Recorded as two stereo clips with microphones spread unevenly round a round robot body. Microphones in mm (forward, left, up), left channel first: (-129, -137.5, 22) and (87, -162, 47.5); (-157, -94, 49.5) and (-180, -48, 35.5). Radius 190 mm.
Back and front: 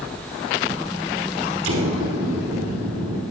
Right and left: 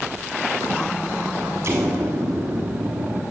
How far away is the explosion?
About 0.7 m.